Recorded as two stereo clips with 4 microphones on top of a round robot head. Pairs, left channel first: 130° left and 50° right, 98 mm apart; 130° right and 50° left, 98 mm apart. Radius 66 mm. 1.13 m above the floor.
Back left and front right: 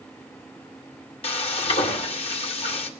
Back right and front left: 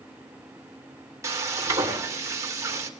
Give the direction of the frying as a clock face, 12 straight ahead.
8 o'clock.